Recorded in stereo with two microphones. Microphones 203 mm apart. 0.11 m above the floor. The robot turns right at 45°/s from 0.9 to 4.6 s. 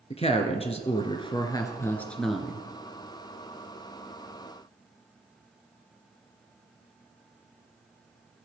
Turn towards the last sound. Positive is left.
turn(degrees=-75)